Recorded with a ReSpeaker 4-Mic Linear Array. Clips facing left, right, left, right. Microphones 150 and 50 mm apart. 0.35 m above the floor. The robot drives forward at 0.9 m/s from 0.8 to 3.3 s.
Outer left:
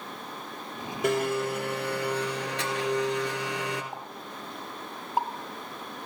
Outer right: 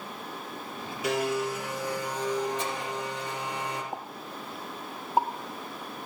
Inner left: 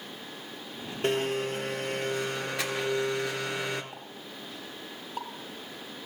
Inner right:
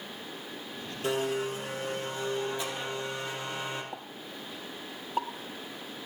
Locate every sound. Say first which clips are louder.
1.0 s a blender: outer left 2 dB, inner left 2 dB; 50° left (ahead or behind), 3 m; by 3.8 s 80° left, 2 m
3.9 s a pop: outer right 2 dB, inner right 1 dB; 25° right (ahead or behind), 1.8 m